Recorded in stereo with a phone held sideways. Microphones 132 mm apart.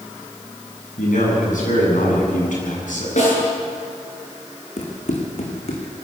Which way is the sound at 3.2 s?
65° left (ahead or behind).